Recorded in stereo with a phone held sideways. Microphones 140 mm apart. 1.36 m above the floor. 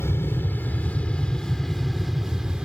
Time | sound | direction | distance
0.0 | an aircraft | 15° left (ahead or behind) | ?